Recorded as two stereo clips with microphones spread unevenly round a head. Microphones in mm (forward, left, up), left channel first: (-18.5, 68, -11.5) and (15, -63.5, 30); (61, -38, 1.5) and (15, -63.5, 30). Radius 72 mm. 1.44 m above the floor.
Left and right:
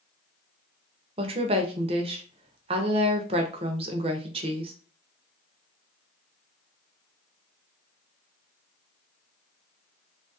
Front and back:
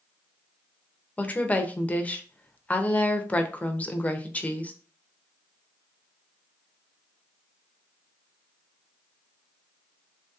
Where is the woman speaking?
50° right, 0.6 m.